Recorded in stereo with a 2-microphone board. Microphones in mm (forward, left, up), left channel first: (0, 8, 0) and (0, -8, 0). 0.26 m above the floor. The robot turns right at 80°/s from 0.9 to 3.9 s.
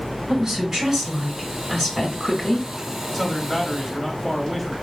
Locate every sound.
0.3 s a woman speaking: 25° right, 2.0 m; by 2.7 s 120° left, 2.0 m
3.1 s a man speaking: 20° right (ahead or behind), 0.9 m; by 4.7 s 10° right (ahead or behind), 0.9 m